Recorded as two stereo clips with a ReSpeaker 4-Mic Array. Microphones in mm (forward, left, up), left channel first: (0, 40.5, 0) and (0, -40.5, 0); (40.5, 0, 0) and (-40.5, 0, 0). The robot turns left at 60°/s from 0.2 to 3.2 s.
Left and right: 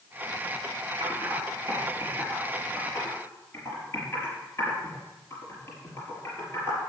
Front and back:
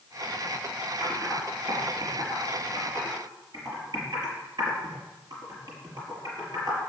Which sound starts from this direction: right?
Typing on a keyboard, at 1.0 s.